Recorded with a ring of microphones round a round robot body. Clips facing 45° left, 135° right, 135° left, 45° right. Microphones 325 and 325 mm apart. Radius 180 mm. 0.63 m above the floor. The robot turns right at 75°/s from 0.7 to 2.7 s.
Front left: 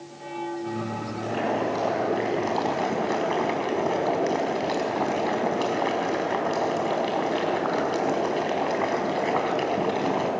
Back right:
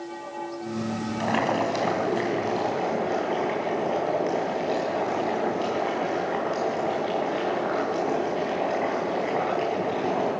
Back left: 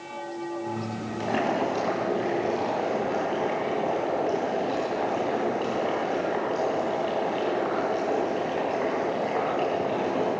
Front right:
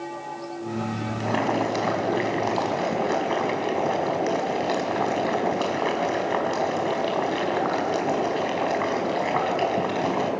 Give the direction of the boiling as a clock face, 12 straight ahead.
4 o'clock.